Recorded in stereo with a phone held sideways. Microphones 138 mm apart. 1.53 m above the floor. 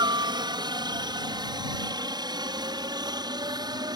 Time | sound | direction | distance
0.0 | a helicopter | 30° right (ahead or behind) | ?